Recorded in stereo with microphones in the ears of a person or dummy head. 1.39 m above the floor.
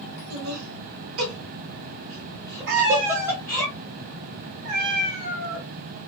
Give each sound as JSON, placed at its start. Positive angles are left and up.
{"t": 0.3, "sound": "laughter", "side_deg": -85, "distance_m": 1.5}
{"t": 2.7, "sound": "a cat meowing", "side_deg": -60, "distance_m": 1.4}